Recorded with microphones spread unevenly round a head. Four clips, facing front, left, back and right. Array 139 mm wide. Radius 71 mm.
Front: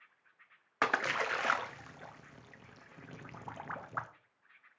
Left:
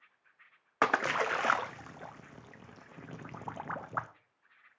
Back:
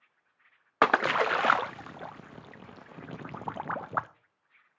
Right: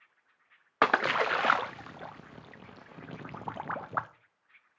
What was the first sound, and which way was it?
A splash, 160° right.